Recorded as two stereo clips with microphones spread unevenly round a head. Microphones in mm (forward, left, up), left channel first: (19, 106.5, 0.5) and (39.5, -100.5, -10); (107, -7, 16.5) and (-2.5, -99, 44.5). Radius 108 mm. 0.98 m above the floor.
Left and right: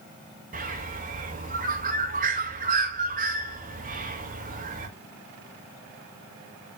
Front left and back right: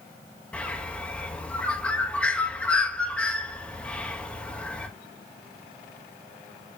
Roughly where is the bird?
Ahead right.